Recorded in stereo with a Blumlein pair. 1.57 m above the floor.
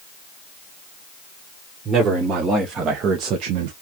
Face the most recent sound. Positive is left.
turn(degrees=-50)